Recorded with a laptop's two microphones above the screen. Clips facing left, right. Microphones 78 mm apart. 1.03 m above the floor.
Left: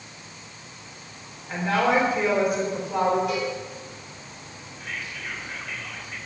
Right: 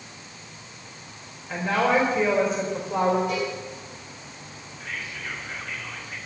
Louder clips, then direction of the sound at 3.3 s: Even; 75° left (ahead or behind).